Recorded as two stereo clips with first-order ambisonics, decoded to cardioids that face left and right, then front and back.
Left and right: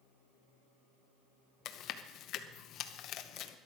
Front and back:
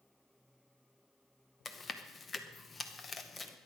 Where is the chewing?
70° left, 0.9 m.